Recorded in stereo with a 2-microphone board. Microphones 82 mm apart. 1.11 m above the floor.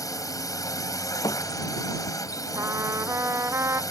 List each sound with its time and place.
0.0 s a drone: 45° left (ahead or behind)
1.2 s a thud: 50° left (ahead or behind)
2.5 s a trumpet: 35° right (ahead or behind)